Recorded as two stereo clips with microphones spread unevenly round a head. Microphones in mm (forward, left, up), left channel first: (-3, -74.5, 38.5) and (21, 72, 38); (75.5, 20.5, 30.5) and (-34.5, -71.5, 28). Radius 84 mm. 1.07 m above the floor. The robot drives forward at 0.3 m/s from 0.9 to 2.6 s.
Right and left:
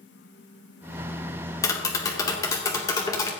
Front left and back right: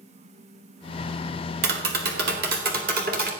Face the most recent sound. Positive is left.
turn(degrees=-170)